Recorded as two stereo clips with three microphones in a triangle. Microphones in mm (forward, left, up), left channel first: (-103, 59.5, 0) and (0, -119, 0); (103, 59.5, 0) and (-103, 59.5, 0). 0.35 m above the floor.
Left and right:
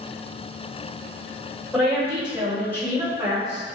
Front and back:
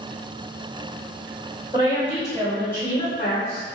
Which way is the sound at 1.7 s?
140° right.